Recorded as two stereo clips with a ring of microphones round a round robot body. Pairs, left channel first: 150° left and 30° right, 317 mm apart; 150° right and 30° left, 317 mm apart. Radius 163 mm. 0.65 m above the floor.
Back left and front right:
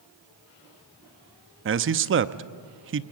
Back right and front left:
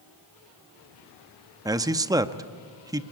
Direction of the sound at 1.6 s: 40° right.